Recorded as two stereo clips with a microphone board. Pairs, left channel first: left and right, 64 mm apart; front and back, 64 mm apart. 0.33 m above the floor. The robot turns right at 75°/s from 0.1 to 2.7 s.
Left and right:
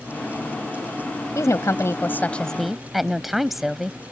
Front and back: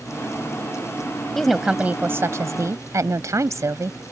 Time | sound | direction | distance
1.4 | a woman speaking | 80° left | ?